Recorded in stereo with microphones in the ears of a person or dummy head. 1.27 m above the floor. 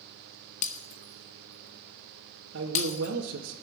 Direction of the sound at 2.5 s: 70° right (ahead or behind).